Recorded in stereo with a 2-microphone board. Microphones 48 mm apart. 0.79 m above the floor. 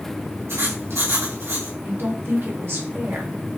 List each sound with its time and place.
0.5 s writing: 90° right, 2.5 m
1.8 s a woman speaking: 55° right (ahead or behind), 1.4 m